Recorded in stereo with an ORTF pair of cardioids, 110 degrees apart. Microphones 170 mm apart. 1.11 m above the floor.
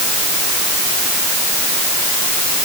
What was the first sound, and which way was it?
Only background noise.